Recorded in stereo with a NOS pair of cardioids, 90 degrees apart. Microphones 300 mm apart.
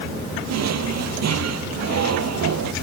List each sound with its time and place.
0.5 s a drawer: 60° right